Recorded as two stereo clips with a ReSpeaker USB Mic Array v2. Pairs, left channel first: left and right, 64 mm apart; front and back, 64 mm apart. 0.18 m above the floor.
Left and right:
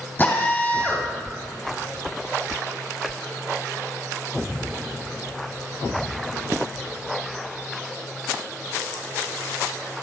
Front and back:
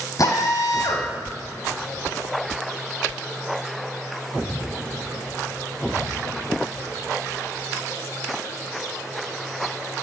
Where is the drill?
30° left, 3 m.